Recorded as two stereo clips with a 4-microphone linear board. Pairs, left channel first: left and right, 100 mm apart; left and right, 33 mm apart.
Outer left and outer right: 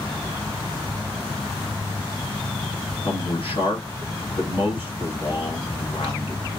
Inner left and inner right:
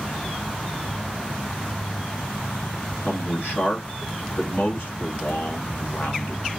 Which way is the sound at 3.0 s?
60° left (ahead or behind).